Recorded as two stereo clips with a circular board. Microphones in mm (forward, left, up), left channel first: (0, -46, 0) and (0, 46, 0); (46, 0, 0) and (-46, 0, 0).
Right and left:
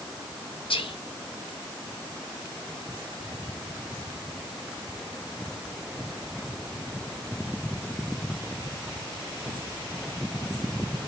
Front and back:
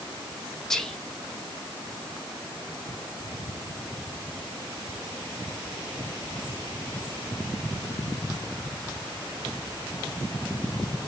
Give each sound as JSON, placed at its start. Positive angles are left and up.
{"t": 0.7, "sound": "whispering", "azimuth_deg": -85, "distance_m": 1.4}